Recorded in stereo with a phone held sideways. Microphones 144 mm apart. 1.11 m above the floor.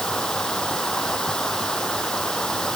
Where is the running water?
5° left (ahead or behind).